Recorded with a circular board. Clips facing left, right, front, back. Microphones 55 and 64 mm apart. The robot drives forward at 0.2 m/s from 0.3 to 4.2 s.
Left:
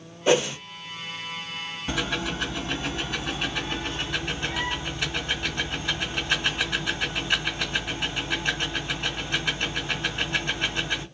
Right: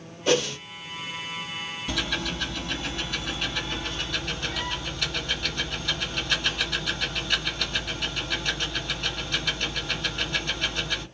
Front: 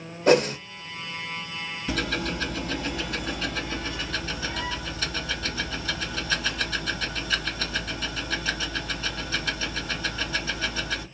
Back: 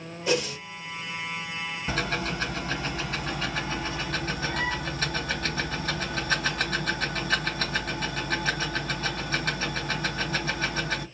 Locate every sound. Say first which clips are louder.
0.3 s a whoosh: left 2 dB, front 8 dB; 20° left, 0.6 m; by 0.6 s 25° left, 0.5 m
1.9 s ticking: left 2 dB, front 1 dB; 145° left, 1.8 m; by 11.1 s 155° left, 2 m